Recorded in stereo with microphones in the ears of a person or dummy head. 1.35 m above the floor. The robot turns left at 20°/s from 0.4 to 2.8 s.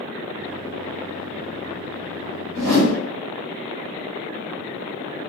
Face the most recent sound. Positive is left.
turn(degrees=-80)